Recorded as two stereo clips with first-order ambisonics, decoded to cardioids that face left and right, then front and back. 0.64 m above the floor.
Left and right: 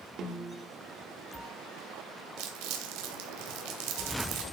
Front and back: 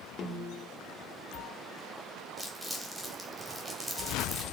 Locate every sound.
0.2 s a snare drum: 45° right, 1.9 m
2.4 s crumpling: 90° right, 2.5 m